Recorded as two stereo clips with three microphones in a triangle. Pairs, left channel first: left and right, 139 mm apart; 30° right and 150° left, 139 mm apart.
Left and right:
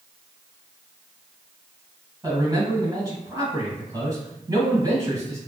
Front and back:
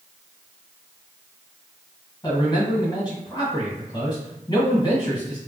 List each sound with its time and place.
2.2 s a man speaking: 50° right, 1.8 m